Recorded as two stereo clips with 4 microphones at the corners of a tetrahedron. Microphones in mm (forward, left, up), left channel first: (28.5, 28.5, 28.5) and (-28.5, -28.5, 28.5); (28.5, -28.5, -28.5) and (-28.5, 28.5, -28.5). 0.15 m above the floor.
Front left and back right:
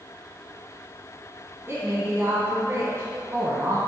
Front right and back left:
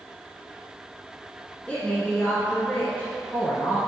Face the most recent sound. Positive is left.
turn(degrees=-105)